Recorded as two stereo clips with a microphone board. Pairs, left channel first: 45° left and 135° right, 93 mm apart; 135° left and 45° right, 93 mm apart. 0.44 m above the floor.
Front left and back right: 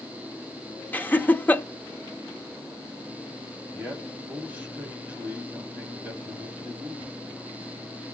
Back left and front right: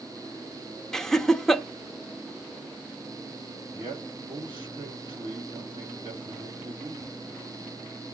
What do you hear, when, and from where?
0.9 s laughter: 60° left, 0.7 m
3.7 s a man speaking: 60° right, 3 m